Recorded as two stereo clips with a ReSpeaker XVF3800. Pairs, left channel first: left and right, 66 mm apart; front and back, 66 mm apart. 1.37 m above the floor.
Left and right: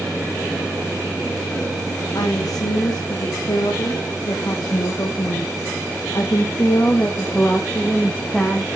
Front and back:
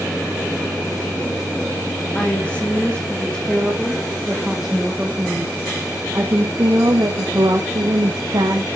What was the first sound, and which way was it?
A woman speaking, 70° left.